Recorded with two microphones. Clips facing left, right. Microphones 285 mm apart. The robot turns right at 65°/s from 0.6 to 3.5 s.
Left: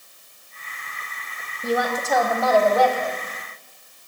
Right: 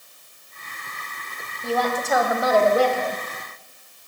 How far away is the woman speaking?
About 1.2 m.